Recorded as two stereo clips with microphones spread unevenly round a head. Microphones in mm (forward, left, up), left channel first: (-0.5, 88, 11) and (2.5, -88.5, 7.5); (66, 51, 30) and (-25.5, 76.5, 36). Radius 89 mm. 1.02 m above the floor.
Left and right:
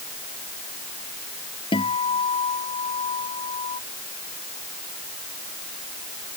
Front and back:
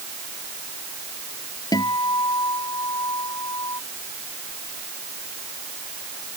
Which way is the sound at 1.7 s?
30° left.